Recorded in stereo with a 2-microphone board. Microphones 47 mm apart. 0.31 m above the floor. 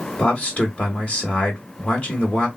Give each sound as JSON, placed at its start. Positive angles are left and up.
{"t": 0.2, "sound": "a man speaking", "side_deg": 30, "distance_m": 1.3}